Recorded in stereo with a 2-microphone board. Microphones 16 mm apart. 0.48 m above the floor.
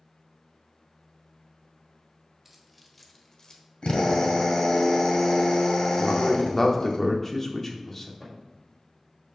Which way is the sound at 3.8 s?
70° left (ahead or behind).